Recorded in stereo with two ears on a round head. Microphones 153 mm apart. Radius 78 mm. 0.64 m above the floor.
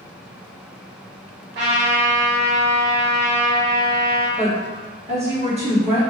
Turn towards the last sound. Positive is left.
turn(degrees=-35)  # may be behind; listen again after turning